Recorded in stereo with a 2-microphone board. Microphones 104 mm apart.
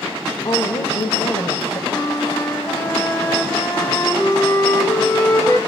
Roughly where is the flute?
Left.